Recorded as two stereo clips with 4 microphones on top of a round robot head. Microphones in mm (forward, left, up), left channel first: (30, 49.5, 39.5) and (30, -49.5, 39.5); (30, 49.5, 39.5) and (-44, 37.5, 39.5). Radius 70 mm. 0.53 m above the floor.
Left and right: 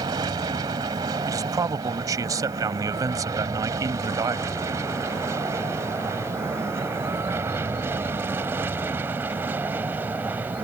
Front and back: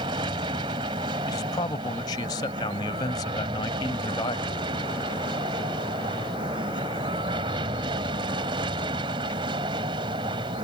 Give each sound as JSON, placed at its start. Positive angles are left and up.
{"t": 0.0, "sound": "an aircraft", "azimuth_deg": -145}
{"t": 1.3, "sound": "a man speaking", "azimuth_deg": -35}